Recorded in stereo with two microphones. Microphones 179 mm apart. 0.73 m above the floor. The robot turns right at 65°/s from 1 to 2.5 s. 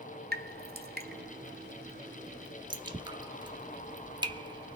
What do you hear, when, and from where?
0.3 s dripping: 55° right (ahead or behind), 0.8 m; by 4.8 s 25° right (ahead or behind), 0.8 m